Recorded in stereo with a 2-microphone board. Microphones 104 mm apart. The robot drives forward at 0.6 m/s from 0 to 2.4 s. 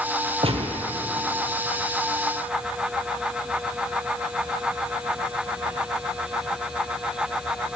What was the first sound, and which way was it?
A gunshot, 70° right (ahead or behind).